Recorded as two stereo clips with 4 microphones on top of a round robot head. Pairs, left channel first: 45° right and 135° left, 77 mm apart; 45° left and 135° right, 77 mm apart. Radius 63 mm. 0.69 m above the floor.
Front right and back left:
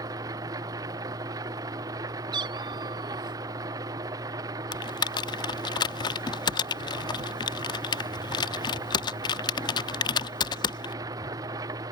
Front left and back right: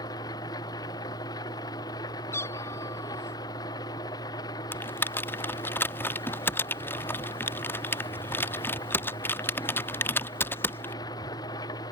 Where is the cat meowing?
105° left.